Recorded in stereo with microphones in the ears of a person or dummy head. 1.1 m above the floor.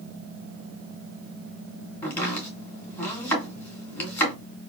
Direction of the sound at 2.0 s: 15° left (ahead or behind).